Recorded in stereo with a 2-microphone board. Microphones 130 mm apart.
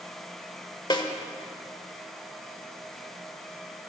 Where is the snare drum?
35° left (ahead or behind), 1.2 m.